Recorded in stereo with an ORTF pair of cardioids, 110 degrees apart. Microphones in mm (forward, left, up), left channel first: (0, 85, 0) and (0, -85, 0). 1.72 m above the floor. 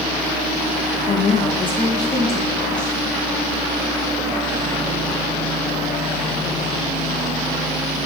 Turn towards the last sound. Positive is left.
turn(degrees=5)